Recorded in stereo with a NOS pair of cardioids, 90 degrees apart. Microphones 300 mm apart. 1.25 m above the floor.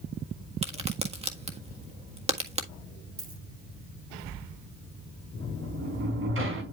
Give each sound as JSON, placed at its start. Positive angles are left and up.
{"t": 0.6, "sound": "a crack", "azimuth_deg": -20, "distance_m": 1.6}
{"t": 3.2, "sound": "a dropped coin", "azimuth_deg": -45, "distance_m": 4.5}
{"t": 5.4, "sound": "a sliding door", "azimuth_deg": -45, "distance_m": 4.0}